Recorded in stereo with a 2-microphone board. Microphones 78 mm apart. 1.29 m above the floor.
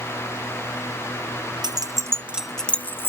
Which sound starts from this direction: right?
Keys jangling, at 1.6 s.